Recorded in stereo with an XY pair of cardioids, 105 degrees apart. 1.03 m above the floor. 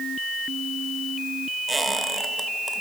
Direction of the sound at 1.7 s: 20° right.